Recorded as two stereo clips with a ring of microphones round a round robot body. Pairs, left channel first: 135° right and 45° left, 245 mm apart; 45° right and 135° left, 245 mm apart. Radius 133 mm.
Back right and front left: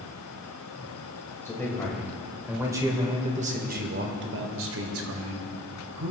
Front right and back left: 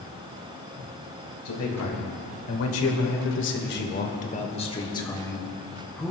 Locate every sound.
1.4 s a man speaking: 55° right, 3 m; by 6.1 s 45° left, 3 m